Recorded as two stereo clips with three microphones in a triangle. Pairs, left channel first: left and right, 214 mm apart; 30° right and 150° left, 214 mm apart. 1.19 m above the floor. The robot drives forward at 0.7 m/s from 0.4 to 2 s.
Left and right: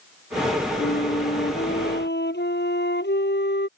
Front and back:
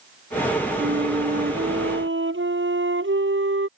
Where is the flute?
125° left.